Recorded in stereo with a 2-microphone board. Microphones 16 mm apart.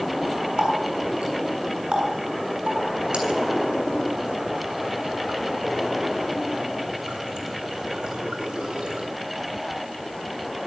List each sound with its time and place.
0.6 s a running tap: 75° right (ahead or behind), 8 m